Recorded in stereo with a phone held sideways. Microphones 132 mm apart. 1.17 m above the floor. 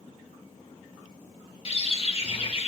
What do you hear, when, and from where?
1.6 s a bird: 45° left (ahead or behind), 1.2 m